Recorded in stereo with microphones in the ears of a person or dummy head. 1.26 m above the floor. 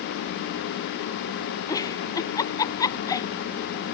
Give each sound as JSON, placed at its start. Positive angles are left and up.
{"t": 1.7, "sound": "a giggle", "side_deg": 15}